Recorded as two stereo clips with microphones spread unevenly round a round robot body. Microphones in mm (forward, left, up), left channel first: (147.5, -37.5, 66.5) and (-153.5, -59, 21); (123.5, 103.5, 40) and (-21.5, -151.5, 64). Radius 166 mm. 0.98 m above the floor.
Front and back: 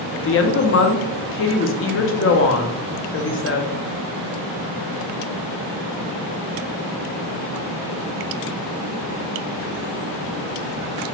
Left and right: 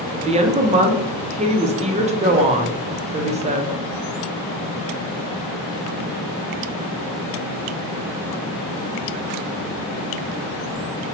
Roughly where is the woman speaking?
Ahead right.